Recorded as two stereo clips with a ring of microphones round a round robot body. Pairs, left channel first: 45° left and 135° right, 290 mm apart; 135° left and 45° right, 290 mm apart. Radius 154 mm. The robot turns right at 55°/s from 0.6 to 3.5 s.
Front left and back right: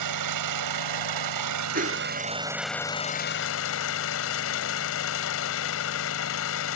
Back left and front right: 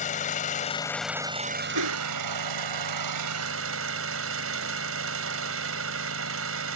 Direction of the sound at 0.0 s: 160° right.